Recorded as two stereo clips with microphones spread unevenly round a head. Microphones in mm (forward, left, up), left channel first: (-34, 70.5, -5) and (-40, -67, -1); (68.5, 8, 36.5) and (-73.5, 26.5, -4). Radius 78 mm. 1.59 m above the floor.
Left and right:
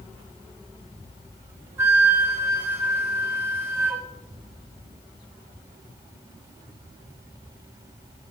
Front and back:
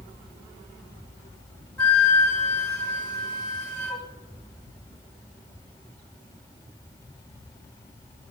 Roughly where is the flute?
Ahead right.